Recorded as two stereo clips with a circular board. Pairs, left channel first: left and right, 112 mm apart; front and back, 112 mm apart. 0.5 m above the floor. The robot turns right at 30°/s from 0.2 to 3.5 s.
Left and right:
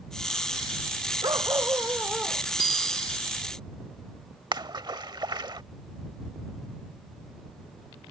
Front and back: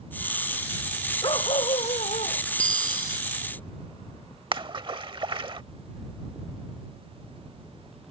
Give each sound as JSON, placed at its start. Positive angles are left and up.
{"t": 1.2, "sound": "a dog barking", "azimuth_deg": -40}
{"t": 2.6, "sound": "a bicycle bell", "azimuth_deg": 40}
{"t": 4.5, "sound": "a splash", "azimuth_deg": -140}